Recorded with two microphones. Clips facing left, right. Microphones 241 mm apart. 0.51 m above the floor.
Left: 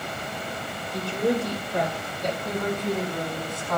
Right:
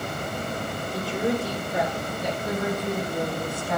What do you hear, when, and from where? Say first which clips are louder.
0.9 s a woman speaking: left 2 dB; 5° right (ahead or behind), 8 m; by 3.8 s 10° right (ahead or behind), 4.5 m